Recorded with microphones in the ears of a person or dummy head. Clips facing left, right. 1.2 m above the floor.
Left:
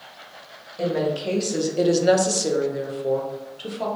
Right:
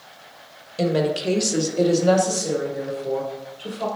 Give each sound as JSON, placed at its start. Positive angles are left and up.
{"t": 0.8, "sound": "a woman speaking", "side_deg": -40, "distance_m": 0.8}